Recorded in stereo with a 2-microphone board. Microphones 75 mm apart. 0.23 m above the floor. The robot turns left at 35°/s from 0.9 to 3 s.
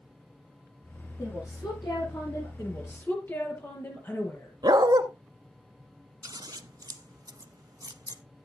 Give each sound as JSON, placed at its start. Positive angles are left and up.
{"t": 1.2, "sound": "a woman speaking", "azimuth_deg": 130, "distance_m": 8.5}
{"t": 2.6, "sound": "a woman speaking", "side_deg": 45, "distance_m": 6.0}
{"t": 4.6, "sound": "a dog barking", "side_deg": -70, "distance_m": 1.0}
{"t": 6.2, "sound": "scissors", "side_deg": -55, "distance_m": 0.7}